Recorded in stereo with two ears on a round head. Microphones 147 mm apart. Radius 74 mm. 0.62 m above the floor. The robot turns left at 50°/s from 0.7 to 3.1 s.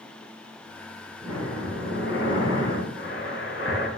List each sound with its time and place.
1.2 s breathing: 155° left, 3.5 m; by 3.9 s 60° left, 3.5 m